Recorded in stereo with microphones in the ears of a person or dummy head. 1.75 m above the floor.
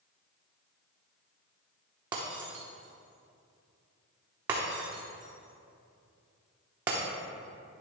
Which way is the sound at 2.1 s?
20° right (ahead or behind).